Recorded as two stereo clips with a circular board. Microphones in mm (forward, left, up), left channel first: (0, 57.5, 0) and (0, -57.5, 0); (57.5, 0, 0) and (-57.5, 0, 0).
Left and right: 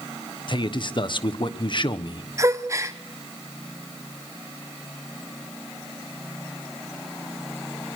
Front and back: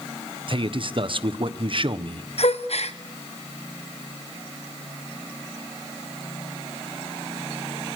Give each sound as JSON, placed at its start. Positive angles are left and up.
{"t": 0.5, "sound": "a man speaking", "azimuth_deg": 135, "distance_m": 1.2}
{"t": 2.4, "sound": "a gasp", "azimuth_deg": -25, "distance_m": 1.2}